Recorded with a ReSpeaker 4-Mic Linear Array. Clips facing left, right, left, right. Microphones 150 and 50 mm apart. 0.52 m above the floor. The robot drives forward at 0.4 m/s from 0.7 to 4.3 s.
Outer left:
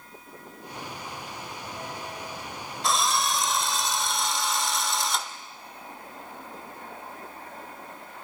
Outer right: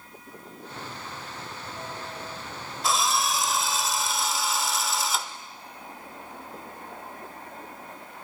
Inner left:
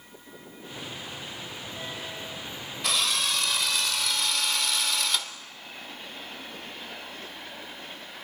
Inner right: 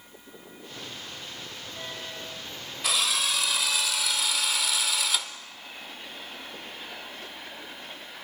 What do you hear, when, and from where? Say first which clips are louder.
2.8 s a drill: even, even; centre (ahead or behind), 1.7 m; by 5.3 s 5° right (ahead or behind), 1.1 m